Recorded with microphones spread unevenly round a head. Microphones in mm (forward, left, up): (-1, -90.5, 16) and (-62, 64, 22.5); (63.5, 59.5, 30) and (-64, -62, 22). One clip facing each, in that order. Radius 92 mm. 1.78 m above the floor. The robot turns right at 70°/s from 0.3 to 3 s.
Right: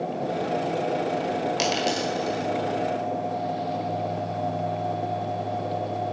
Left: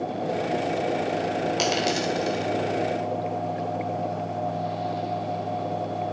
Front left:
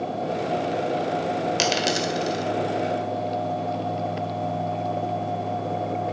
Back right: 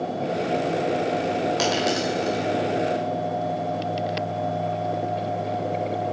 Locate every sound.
1.6 s a dropped coin: 20° left, 1.7 m; by 2.5 s 80° left, 1.7 m